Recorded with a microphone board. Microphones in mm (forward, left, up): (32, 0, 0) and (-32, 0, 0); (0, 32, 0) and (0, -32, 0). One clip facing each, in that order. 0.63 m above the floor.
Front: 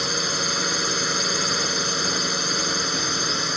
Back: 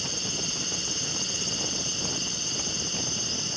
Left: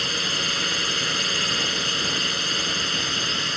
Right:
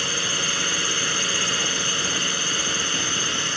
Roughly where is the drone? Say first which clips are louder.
Front 10 dB, even; ahead.